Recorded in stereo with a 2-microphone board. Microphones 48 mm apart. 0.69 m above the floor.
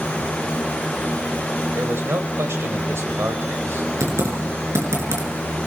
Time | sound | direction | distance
1.8 | a man speaking | 70° right (ahead or behind) | 3.5 m
4.0 | typing on a keyboard | 85° right | 5.5 m